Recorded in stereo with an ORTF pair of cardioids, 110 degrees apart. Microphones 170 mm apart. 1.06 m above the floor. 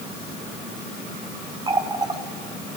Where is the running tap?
25° right, 1.7 m.